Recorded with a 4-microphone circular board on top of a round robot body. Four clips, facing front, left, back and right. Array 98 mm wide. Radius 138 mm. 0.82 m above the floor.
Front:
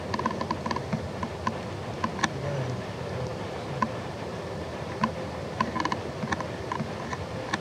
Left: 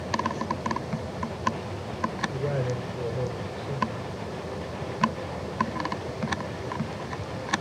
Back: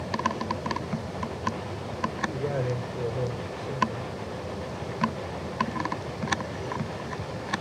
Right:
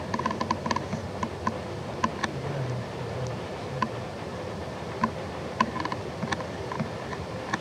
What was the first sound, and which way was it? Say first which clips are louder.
A man speaking: left 3 dB, back 2 dB; 160° left.